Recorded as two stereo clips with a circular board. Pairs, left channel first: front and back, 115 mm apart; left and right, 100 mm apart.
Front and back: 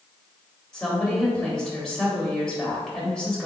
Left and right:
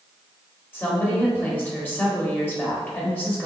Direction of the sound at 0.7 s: 70° left.